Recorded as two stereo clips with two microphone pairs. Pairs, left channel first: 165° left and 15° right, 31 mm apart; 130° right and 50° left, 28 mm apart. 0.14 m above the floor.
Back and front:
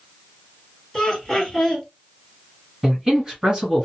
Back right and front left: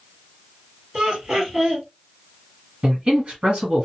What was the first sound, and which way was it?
Laughter, 95° left.